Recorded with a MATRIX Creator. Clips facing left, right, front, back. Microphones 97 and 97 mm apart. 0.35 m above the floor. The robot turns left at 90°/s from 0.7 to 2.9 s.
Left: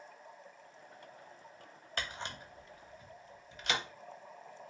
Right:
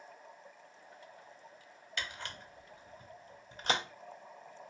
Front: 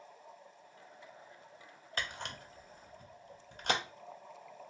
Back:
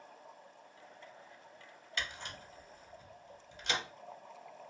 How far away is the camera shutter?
About 0.6 m.